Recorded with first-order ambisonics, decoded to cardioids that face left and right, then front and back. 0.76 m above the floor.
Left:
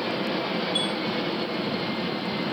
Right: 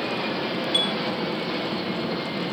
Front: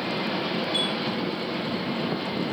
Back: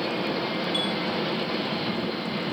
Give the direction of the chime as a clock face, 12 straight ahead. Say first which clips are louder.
Right 6 dB, front 2 dB; 3 o'clock.